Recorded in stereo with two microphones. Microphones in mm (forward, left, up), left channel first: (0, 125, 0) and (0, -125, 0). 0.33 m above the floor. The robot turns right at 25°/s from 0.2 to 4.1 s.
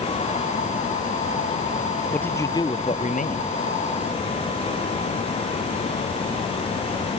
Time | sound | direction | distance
2.1 | a man speaking | 5° left | ?